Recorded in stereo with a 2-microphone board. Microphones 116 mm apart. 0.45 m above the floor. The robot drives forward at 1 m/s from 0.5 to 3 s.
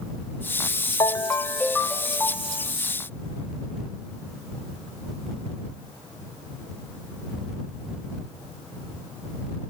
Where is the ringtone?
30° left (ahead or behind), 0.6 m; by 2.7 s 10° left (ahead or behind), 2 m.